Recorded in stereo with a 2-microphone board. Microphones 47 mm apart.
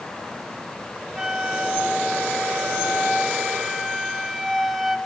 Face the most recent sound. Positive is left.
turn(degrees=-5)  # may be behind; listen again after turning